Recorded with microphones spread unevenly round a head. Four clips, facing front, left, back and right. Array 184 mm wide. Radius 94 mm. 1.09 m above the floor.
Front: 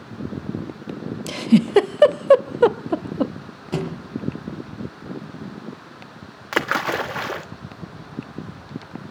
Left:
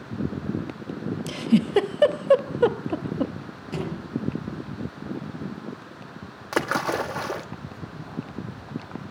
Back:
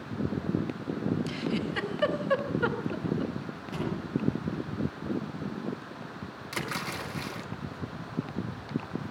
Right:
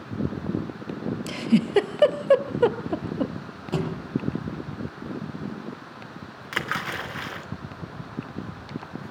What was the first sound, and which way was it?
A giggle, 5° right.